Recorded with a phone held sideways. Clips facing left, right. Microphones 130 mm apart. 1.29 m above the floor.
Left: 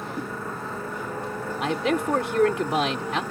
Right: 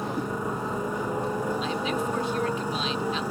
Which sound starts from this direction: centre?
A motorcycle, at 0.0 s.